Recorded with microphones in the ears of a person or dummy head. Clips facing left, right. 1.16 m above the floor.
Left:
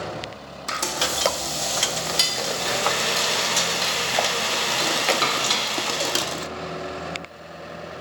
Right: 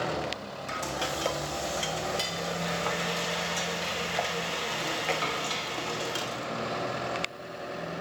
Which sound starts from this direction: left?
Frying, at 0.7 s.